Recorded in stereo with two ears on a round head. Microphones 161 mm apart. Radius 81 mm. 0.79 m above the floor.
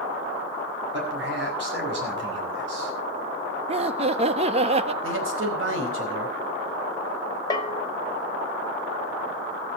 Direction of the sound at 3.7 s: 35° right (ahead or behind).